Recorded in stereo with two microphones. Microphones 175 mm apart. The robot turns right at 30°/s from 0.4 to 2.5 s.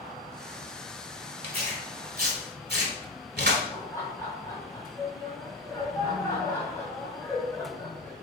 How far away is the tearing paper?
About 1.0 m.